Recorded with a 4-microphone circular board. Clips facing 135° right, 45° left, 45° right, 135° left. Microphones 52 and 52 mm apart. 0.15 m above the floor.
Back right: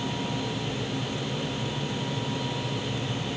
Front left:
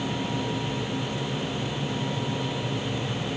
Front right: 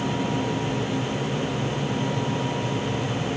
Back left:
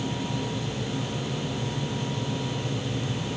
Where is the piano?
No piano in this recording.